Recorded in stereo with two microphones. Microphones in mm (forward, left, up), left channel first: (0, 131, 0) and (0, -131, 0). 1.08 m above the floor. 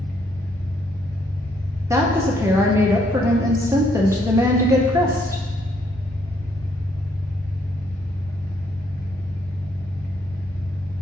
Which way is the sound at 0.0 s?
5° left (ahead or behind).